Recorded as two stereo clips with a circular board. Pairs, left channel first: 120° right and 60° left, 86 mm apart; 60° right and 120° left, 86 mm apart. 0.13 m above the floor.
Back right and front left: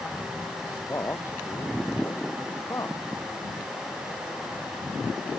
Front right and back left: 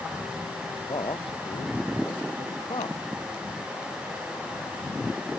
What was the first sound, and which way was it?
A man speaking, 65° right.